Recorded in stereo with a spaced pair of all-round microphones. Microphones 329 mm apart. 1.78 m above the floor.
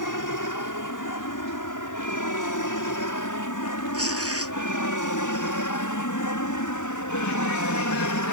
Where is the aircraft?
70° left (ahead or behind); by 8.3 s 65° left (ahead or behind).